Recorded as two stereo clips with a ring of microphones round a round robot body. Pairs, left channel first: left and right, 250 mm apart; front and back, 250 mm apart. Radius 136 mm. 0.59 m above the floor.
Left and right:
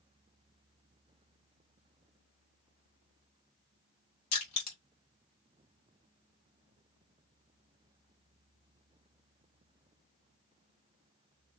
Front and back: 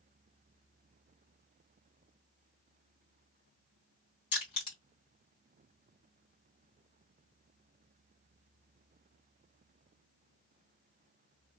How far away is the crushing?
About 1.8 m.